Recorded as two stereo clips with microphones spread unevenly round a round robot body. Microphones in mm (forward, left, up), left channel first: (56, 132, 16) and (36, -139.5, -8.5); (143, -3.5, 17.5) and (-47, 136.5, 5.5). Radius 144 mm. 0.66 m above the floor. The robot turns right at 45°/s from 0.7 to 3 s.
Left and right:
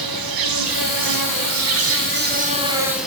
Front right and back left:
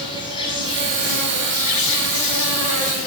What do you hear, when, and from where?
0.0 s an insect: 110° right, 2 m; by 3.1 s 5° right, 2 m